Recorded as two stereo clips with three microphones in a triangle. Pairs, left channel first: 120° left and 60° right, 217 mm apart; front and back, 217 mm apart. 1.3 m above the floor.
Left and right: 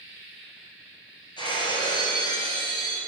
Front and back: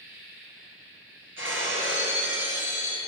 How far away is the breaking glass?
About 2.5 m.